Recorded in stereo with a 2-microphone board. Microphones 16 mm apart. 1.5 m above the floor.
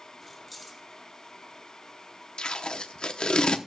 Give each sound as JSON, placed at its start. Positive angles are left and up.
{"t": 0.2, "sound": "keys jangling", "side_deg": 0, "distance_m": 1.9}
{"t": 2.4, "sound": "tape being pulled", "side_deg": 70, "distance_m": 0.9}